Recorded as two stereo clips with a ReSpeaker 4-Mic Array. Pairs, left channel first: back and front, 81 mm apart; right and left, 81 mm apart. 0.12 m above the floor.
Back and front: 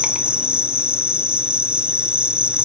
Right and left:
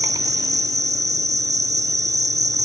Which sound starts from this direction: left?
An insect, at 0.0 s.